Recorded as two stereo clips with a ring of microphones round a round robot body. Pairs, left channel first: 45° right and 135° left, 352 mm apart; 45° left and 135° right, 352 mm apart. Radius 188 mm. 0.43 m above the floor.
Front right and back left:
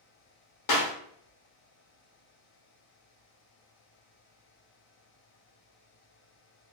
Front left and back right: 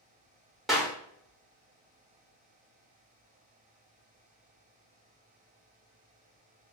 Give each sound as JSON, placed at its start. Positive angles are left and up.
{"t": 0.7, "sound": "a clap", "azimuth_deg": -45, "distance_m": 1.4}